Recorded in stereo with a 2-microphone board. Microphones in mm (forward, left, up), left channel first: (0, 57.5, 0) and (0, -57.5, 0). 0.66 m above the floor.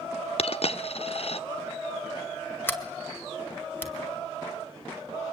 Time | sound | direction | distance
0.4 | a dropped coin | 55° left (ahead or behind) | 0.7 m
2.7 | a sliding door | 15° left (ahead or behind) | 2.0 m